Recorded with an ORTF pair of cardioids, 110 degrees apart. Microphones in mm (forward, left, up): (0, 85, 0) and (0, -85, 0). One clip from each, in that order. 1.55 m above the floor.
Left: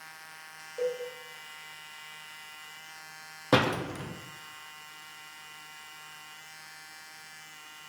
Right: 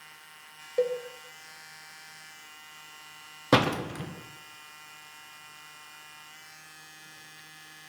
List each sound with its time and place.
0.8 s a cowbell: 60° right, 0.9 m
3.5 s a door slam: 15° right, 0.8 m